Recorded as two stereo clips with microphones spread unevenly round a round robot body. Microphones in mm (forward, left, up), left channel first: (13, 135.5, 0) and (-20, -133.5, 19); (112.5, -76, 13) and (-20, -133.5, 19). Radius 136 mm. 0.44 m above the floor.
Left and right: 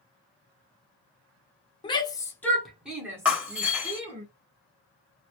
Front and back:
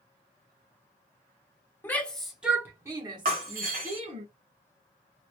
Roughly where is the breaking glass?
Behind.